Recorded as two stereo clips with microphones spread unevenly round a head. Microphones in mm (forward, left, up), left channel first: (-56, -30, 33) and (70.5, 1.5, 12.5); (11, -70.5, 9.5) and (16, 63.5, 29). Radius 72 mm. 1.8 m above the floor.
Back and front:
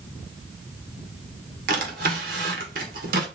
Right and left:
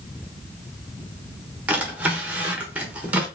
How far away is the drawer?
About 1.2 m.